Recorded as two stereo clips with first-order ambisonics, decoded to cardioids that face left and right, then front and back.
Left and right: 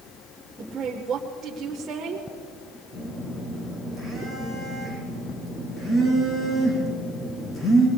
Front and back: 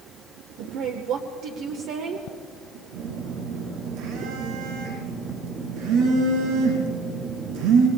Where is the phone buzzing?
165° left, 4.5 m.